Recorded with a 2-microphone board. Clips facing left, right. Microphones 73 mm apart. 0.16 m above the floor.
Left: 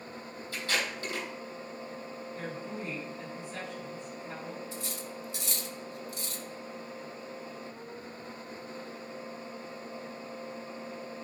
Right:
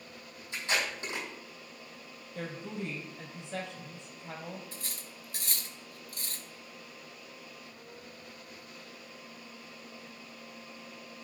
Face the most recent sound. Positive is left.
turn(degrees=-50)  # may be behind; listen again after turning